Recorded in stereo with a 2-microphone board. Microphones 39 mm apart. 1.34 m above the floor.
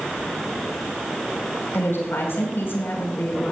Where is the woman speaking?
75° left (ahead or behind), 5.5 m.